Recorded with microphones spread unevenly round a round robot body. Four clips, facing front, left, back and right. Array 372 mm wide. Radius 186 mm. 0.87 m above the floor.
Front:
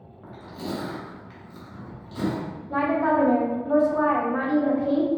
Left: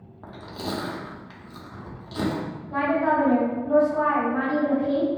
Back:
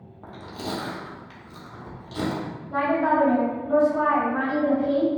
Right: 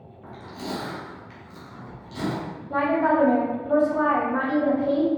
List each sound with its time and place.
0.2 s chewing: 145° left, 1.3 m
2.7 s a woman speaking: 45° right, 1.6 m